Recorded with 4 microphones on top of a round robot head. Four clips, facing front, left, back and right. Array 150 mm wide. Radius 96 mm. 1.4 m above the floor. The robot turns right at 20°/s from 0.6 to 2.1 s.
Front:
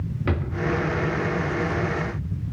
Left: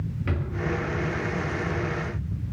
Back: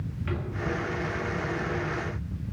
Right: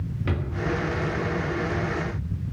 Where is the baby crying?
No baby crying in this recording.